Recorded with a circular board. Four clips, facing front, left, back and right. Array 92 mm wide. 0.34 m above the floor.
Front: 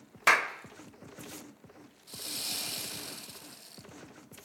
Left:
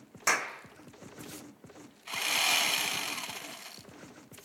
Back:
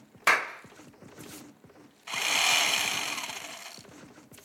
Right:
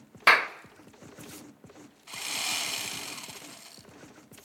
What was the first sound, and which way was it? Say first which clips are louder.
A clap: right 8 dB, even; 95° right.